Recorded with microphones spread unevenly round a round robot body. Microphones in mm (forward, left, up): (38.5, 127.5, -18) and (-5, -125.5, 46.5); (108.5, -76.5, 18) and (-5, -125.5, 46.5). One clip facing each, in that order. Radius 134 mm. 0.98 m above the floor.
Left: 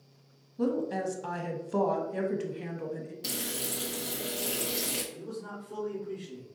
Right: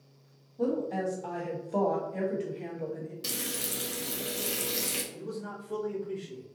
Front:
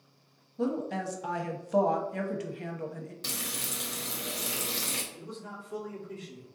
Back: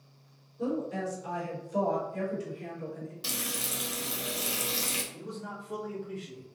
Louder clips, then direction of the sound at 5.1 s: Right 1 dB, back 2 dB; 155° right.